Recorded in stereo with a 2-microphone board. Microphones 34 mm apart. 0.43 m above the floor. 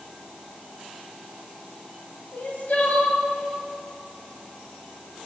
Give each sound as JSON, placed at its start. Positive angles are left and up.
{"t": 2.3, "sound": "crying", "side_deg": 55, "distance_m": 1.5}